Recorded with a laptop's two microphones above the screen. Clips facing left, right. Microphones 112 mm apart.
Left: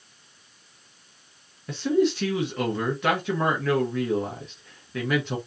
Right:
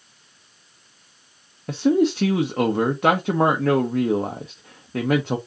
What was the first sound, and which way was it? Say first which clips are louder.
A man speaking: right 4 dB; 45° right (ahead or behind).